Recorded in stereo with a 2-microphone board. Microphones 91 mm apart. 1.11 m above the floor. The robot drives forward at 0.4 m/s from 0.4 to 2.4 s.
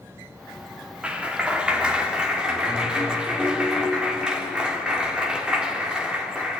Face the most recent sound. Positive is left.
turn(degrees=-10)  # may be behind; listen again after turning